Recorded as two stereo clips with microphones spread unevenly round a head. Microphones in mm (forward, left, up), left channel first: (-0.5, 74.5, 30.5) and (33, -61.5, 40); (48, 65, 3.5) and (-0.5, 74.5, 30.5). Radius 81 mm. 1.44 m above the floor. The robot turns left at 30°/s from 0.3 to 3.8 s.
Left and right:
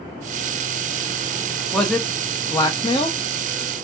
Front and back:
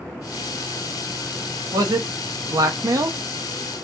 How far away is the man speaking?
About 0.9 m.